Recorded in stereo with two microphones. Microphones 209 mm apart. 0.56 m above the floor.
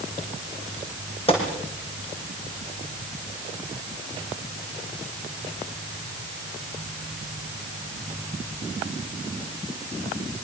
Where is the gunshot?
25° left (ahead or behind), 6 m.